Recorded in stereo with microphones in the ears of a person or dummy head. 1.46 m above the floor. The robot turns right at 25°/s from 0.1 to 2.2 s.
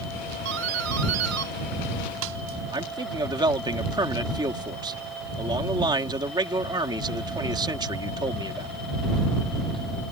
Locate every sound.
0.5 s a doorbell: 120° right; by 2.6 s 75° right
2.7 s a man speaking: 20° right (ahead or behind)